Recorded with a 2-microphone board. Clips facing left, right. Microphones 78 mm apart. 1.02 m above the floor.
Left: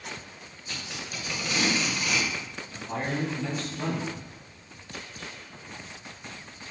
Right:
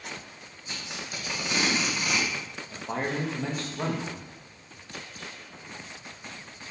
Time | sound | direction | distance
0.7 | tape being pulled | 20° right (ahead or behind) | 1.2 m
2.7 | a man speaking | 45° right (ahead or behind) | 0.8 m